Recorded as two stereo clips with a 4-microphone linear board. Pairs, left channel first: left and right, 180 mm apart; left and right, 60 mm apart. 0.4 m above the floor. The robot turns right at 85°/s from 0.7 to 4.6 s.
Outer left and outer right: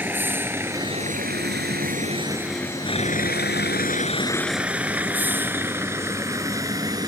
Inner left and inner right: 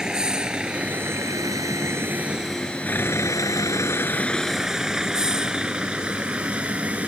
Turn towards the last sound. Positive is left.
turn(degrees=-25)  # may be behind; listen again after turning